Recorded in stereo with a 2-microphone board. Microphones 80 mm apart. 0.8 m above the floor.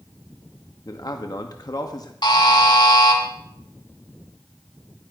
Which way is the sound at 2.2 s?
60° left (ahead or behind).